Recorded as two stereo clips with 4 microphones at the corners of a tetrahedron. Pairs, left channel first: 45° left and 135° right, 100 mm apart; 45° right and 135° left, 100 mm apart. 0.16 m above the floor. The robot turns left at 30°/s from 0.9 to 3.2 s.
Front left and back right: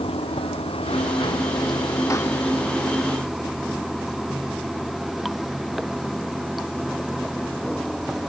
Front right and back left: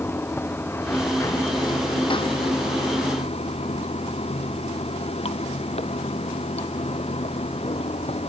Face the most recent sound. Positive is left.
turn(degrees=-45)